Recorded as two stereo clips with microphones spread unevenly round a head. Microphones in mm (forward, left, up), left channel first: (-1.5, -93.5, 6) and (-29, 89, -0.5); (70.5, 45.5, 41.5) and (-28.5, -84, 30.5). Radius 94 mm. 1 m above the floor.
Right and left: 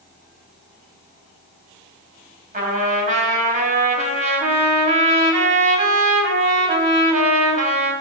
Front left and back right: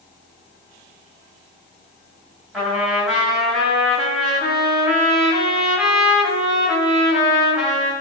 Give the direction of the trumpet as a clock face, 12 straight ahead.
7 o'clock.